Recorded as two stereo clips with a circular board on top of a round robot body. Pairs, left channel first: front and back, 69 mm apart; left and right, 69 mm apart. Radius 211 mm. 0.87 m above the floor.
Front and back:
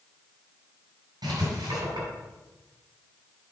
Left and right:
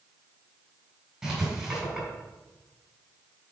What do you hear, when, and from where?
1.2 s writing: 170° right, 4.5 m